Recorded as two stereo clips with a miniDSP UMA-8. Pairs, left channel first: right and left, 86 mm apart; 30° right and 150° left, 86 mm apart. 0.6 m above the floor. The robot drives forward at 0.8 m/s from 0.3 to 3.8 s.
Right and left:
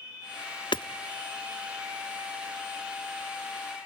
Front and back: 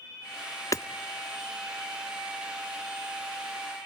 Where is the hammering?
75° right, 0.5 m; by 0.9 s 90° right, 0.5 m.